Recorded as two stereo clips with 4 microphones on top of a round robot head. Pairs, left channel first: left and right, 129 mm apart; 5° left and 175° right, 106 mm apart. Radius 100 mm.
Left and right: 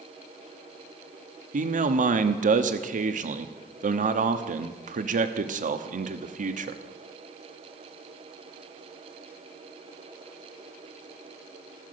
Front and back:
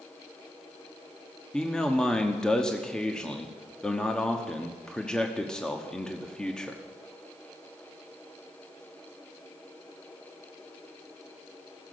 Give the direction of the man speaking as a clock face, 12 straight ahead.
3 o'clock.